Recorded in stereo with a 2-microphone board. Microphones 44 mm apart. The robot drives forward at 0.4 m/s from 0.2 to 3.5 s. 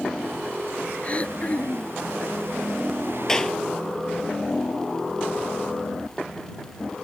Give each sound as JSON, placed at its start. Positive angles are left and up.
{"t": 1.0, "sound": "throat clearing", "side_deg": 30}
{"t": 3.3, "sound": "a clap", "side_deg": 10}